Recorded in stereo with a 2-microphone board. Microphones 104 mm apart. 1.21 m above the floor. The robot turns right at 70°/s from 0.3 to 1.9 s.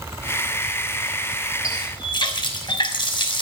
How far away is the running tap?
About 3.5 m.